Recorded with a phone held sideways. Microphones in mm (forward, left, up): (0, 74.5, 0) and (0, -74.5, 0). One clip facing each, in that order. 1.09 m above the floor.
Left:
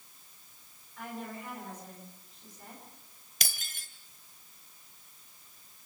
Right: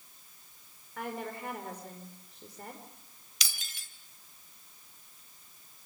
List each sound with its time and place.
1.0 s a woman speaking: 80° right, 4.5 m
3.4 s breaking glass: 55° left (ahead or behind), 2.0 m